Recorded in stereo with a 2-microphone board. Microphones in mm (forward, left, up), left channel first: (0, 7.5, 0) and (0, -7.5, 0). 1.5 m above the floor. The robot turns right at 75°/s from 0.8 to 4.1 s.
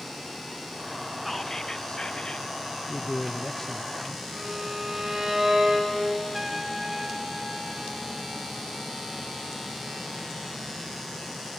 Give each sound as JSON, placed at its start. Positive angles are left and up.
{"t": 1.2, "sound": "whispering", "azimuth_deg": 0, "distance_m": 0.5}
{"t": 2.9, "sound": "a man speaking", "azimuth_deg": 90, "distance_m": 0.7}
{"t": 4.3, "sound": "a violin", "side_deg": -50, "distance_m": 6.0}
{"t": 6.3, "sound": "a trumpet", "side_deg": -20, "distance_m": 0.9}